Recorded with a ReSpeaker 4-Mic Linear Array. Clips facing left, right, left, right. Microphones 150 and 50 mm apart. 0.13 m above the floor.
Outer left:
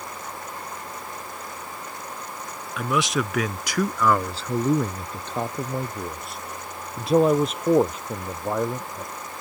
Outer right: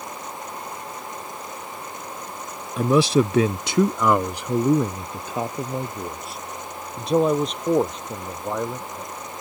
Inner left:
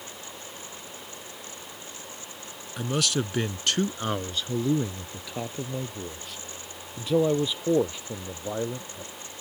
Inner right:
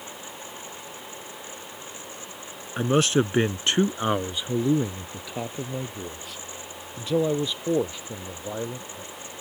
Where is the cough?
No cough in this recording.